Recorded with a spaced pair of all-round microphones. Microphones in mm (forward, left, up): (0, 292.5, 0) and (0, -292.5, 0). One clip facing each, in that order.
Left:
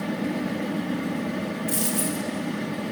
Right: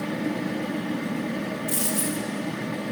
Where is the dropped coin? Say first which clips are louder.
Left 1 dB; 5° right (ahead or behind), 0.8 m.